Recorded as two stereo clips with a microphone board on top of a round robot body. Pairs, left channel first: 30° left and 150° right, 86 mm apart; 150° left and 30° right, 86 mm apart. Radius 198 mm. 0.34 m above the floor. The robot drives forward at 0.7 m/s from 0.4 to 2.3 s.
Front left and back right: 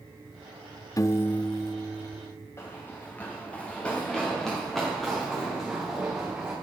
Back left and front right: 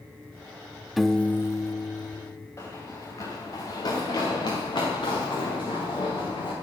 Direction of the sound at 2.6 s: 90° left.